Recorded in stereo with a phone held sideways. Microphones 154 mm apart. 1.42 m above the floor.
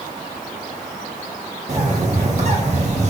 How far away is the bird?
About 1.8 m.